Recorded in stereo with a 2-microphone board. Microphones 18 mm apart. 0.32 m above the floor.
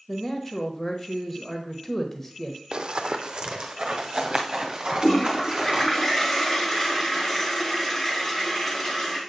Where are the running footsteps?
60° right (ahead or behind), 0.6 m; by 5.9 s 40° right (ahead or behind), 2.5 m.